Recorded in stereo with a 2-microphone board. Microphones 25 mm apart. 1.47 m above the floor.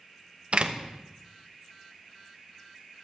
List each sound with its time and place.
0.5 s a door slam: 45° right (ahead or behind), 1.0 m